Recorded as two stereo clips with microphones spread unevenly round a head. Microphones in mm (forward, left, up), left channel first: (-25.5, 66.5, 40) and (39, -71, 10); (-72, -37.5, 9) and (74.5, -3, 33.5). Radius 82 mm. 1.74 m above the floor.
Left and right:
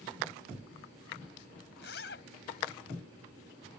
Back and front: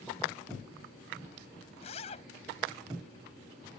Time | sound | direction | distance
1.8 | a zipper | 135° left | ?